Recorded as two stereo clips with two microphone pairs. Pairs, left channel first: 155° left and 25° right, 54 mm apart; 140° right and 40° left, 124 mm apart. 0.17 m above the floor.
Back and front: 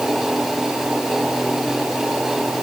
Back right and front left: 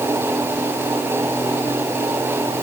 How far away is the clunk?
No clunk in this recording.